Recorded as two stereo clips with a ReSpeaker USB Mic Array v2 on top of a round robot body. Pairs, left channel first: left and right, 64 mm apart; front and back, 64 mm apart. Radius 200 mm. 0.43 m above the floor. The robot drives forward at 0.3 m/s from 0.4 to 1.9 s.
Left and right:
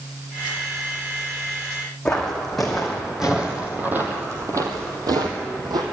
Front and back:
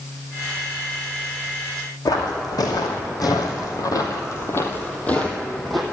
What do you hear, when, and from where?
2.0 s footsteps: 10° left, 2.5 m; by 5.8 s 90° right, 1.6 m